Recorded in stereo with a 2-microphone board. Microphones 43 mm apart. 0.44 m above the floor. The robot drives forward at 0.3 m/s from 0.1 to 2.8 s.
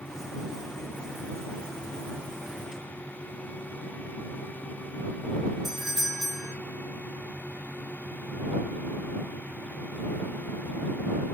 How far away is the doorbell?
About 1.3 m.